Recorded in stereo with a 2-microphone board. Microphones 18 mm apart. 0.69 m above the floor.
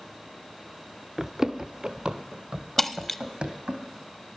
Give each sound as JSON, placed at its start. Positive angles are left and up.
{"t": 1.2, "sound": "running footsteps", "side_deg": -25, "distance_m": 0.7}
{"t": 2.8, "sound": "breaking glass", "side_deg": 10, "distance_m": 0.6}